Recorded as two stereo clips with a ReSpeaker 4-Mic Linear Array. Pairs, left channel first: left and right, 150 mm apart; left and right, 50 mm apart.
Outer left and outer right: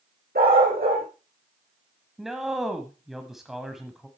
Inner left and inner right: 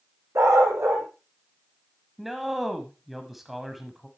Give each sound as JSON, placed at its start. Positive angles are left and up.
{"t": 0.3, "sound": "a dog barking", "side_deg": -85, "distance_m": 4.0}
{"t": 2.2, "sound": "a man speaking", "side_deg": 0, "distance_m": 1.2}